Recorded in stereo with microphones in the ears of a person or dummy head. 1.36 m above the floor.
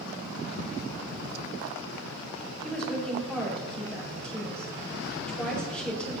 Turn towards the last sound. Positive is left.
turn(degrees=5)  # may be behind; listen again after turning